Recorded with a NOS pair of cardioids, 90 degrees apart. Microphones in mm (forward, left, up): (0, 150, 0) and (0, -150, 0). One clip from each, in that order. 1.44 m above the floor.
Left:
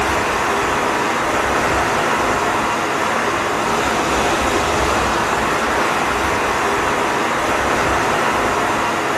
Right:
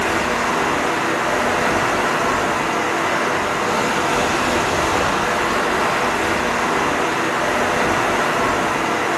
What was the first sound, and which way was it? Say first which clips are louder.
Running water: left 1 dB; 55° left.